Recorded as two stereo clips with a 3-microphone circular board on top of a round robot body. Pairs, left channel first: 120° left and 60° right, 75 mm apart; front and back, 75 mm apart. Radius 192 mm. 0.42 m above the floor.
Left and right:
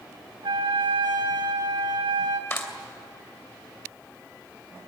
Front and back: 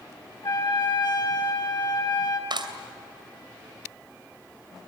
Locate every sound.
0.4 s a trumpet: 30° right, 1.6 m
2.5 s a clap: straight behind, 2.5 m